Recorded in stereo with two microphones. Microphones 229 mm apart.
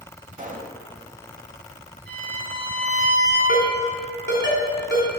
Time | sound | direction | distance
0.3 | a pop | 35° right (ahead or behind) | 0.9 m
2.1 | a violin | 50° right (ahead or behind) | 2.5 m
3.5 | a ringtone | 55° left (ahead or behind) | 2 m